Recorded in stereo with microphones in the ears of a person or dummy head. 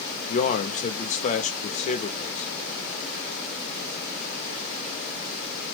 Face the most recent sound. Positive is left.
turn(degrees=35)  # may be behind; listen again after turning